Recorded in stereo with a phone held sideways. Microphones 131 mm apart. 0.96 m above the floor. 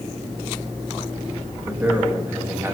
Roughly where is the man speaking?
Centre.